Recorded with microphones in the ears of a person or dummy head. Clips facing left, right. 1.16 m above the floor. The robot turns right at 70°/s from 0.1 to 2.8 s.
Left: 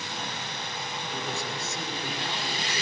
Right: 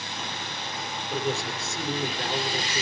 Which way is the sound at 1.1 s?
130° right.